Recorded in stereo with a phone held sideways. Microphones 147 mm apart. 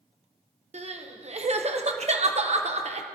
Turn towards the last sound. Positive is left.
turn(degrees=-45)  # may be behind; listen again after turning